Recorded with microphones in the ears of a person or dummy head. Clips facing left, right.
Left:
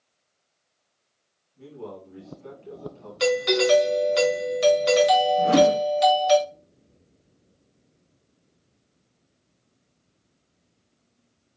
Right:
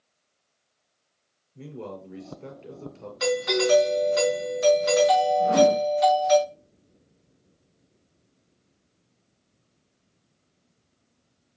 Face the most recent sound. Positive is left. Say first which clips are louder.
# left 1 dB
turn(degrees=85)